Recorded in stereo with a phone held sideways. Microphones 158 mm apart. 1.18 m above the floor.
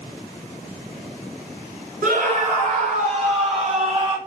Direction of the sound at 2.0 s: 55° right (ahead or behind).